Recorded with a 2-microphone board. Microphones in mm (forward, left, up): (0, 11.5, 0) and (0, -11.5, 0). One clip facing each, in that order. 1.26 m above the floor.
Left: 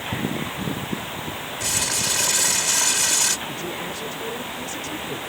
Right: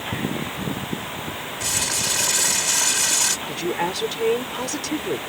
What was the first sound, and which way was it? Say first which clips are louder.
Crumpling: even; 5° left (ahead or behind).